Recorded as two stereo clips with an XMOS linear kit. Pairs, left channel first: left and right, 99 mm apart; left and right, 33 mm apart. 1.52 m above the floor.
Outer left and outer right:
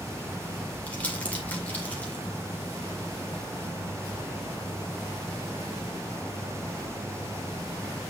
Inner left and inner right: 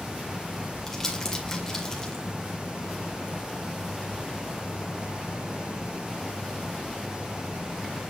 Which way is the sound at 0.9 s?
15° left (ahead or behind).